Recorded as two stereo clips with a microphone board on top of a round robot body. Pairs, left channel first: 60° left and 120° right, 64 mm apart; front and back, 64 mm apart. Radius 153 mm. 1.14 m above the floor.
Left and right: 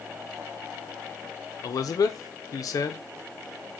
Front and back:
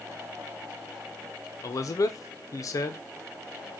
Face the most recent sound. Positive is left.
turn(degrees=30)